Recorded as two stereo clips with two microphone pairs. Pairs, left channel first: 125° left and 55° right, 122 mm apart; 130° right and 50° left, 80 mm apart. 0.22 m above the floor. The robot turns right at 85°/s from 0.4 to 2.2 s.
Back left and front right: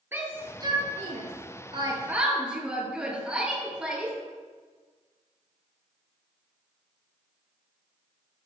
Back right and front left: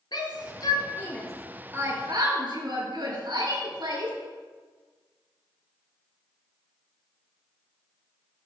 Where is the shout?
125° right, 4 m; by 4.2 s 30° left, 4 m.